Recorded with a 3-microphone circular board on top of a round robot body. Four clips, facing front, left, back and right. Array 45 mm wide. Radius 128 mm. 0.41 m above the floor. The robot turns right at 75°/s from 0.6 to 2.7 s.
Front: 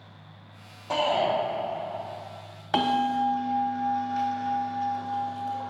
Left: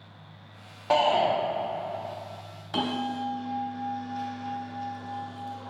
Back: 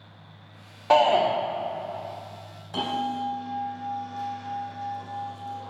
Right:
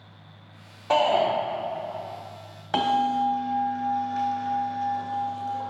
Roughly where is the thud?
No thud in this recording.